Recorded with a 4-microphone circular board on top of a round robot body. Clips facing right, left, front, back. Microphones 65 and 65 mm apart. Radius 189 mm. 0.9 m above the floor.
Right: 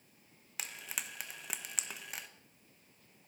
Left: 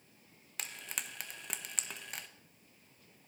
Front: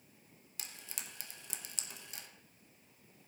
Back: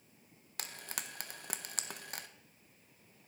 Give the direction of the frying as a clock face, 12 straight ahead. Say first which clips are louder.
Even, back 6 dB; 6 o'clock.